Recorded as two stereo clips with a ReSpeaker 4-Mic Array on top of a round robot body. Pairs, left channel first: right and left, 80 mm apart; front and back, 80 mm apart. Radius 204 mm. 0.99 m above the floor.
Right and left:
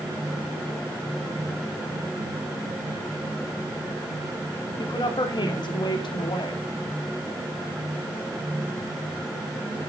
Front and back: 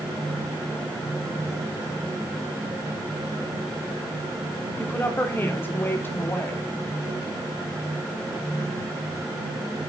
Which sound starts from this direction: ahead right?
A woman speaking, at 4.8 s.